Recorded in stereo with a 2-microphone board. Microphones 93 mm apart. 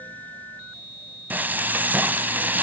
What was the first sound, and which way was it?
Frying, 20° right (ahead or behind).